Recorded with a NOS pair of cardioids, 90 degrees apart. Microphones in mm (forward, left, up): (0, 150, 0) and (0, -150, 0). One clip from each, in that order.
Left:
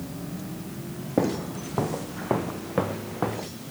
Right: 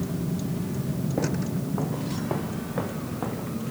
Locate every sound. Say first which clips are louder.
0.0 s a vehicle: right 5 dB; 55° right; by 3.7 s 70° right
1.2 s footsteps: left 5 dB; 45° left